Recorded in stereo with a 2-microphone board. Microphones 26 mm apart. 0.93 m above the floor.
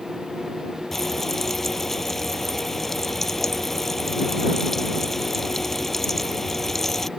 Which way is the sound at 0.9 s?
10° left (ahead or behind).